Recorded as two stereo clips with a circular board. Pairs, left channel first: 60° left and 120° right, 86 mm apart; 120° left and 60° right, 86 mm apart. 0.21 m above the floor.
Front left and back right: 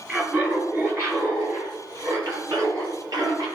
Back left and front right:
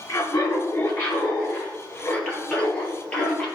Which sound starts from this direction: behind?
Laughter, at 0.1 s.